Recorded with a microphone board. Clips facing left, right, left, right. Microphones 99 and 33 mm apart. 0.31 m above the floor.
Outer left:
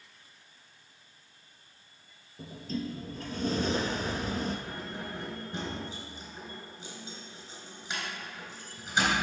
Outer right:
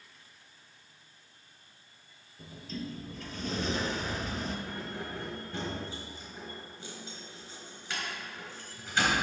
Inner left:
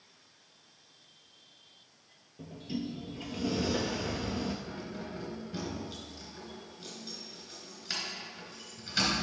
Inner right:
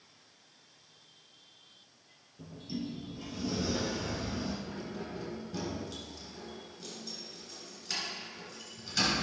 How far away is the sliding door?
About 1.0 m.